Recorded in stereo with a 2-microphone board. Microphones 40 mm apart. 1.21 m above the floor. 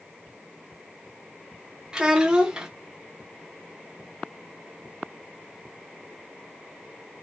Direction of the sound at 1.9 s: 20° right (ahead or behind).